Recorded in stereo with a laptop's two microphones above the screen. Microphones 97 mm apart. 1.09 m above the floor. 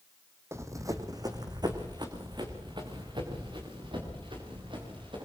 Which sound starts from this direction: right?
Running footsteps, at 0.5 s.